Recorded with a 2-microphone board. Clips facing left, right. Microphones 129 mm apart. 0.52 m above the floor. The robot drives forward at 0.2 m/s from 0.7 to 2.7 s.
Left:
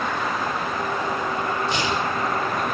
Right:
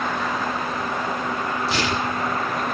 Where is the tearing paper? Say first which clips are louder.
Even; 85° right, 4.5 m.